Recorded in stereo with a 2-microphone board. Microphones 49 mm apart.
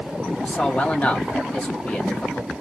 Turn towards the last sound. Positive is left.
turn(degrees=20)  # may be behind; listen again after turning